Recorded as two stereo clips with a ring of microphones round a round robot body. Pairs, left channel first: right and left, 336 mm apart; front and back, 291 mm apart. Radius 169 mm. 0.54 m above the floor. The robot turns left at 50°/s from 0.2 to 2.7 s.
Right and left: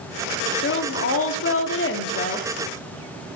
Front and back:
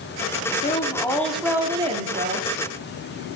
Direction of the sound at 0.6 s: 55° right.